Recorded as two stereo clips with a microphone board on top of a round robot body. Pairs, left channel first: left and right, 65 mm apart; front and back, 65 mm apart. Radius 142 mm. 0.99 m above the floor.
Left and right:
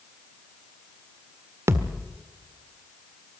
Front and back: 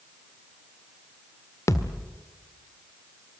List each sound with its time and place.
1.7 s a thud: 40° right, 1.4 m